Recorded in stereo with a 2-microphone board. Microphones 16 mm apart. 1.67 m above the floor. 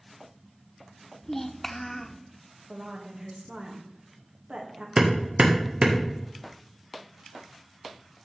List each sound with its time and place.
1.2 s a child speaking: 25° left (ahead or behind), 0.5 m
2.7 s a woman speaking: 80° right, 2 m
5.0 s hammering: 65° right (ahead or behind), 1.6 m